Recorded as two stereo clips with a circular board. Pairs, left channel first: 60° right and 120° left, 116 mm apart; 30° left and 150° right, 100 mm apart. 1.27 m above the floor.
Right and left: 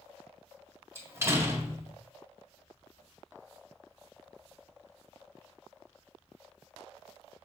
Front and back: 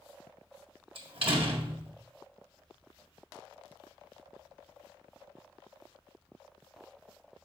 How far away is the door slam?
About 1.5 m.